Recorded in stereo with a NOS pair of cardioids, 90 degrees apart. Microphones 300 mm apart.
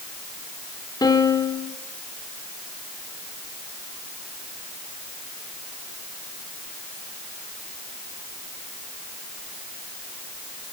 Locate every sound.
1.0 s a piano: 15° left, 3 m